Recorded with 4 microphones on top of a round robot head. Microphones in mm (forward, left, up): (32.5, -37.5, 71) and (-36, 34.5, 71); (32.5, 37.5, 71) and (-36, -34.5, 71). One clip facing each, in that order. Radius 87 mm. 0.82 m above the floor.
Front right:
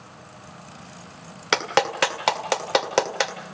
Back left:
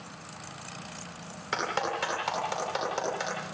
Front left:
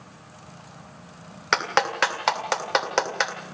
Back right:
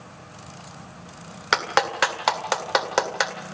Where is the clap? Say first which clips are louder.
Front right 8 dB, back right 1 dB; 50° right, 2 m.